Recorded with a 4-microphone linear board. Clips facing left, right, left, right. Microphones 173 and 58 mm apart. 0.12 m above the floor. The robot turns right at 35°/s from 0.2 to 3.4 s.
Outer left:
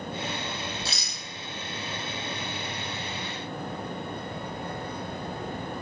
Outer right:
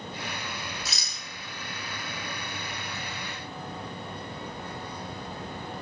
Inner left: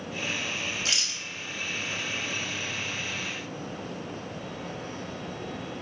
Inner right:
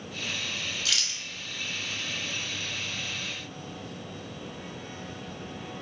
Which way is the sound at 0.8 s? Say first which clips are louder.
Outer left 4 dB, inner left 1 dB; 30° left (ahead or behind).